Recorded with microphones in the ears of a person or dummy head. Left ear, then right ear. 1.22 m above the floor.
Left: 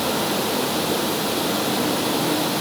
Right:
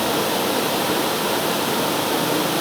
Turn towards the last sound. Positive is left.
No sound to turn to.